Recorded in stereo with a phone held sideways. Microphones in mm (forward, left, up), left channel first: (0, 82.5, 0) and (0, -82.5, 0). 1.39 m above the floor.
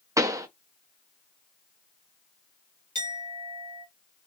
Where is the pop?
20° right (ahead or behind), 0.5 m.